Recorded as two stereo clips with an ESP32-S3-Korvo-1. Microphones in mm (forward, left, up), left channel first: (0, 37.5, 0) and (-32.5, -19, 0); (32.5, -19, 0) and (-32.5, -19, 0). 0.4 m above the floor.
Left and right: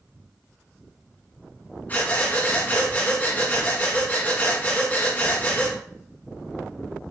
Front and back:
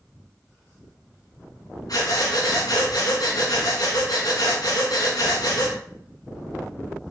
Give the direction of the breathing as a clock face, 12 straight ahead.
12 o'clock.